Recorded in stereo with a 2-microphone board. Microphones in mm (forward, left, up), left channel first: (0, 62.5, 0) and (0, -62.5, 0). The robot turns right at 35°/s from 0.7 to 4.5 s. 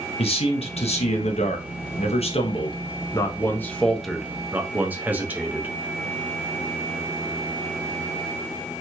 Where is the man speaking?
65° left, 0.7 m; by 5.7 s 165° right, 0.7 m.